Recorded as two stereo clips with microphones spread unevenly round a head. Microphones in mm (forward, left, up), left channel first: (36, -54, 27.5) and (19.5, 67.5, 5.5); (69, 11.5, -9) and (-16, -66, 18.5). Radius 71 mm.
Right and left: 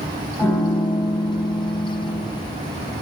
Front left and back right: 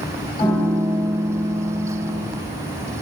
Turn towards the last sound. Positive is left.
turn(degrees=-15)